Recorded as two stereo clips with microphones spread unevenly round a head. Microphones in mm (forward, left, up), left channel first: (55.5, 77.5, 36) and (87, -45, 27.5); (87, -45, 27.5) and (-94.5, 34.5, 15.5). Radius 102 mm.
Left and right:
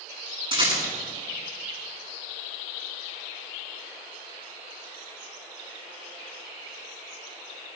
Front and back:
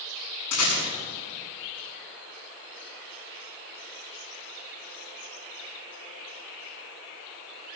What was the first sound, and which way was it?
A rattle, 25° right.